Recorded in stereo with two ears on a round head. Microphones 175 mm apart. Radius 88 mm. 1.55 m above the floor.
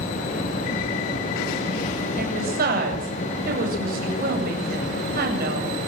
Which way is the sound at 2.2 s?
50° right (ahead or behind).